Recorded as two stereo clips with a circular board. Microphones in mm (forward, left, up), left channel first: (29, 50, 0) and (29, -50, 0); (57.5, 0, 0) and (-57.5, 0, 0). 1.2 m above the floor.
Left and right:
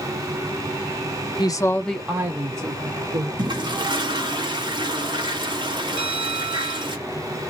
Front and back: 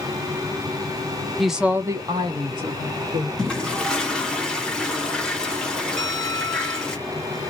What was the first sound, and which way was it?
A woman speaking, 90° left.